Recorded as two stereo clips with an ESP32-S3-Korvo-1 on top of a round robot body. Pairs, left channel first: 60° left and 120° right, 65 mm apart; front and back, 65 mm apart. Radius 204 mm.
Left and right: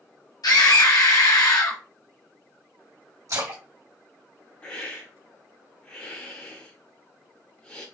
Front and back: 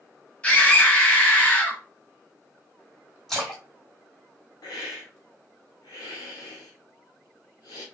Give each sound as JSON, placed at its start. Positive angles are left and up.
{"t": 0.4, "sound": "a scream", "azimuth_deg": 70, "distance_m": 1.3}
{"t": 3.3, "sound": "a splash", "azimuth_deg": -85, "distance_m": 2.0}
{"t": 4.6, "sound": "a hiss", "azimuth_deg": -10, "distance_m": 1.1}